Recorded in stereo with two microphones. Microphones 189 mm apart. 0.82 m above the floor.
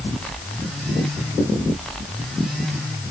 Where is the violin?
I don't hear a violin.